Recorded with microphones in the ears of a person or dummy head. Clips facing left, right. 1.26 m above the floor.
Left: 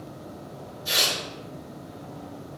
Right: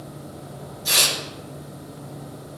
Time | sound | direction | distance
0.8 | tearing paper | 75° right (ahead or behind) | 3 m